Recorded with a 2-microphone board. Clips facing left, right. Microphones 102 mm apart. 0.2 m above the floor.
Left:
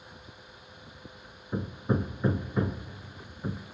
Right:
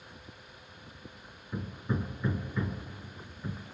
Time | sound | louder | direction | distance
1.5 | hammering | left 5 dB | 45° left (ahead or behind) | 0.5 m